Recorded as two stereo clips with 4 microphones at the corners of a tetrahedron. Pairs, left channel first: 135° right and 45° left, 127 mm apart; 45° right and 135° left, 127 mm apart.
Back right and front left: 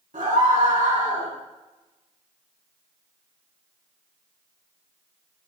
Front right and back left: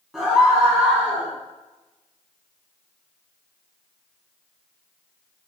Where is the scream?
45° left, 7.5 m; by 1.3 s 60° left, 8 m.